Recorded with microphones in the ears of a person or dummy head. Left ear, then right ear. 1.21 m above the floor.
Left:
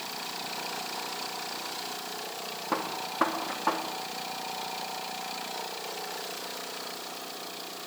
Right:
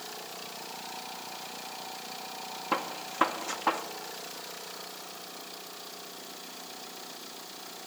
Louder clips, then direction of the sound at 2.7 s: Even; 80° right.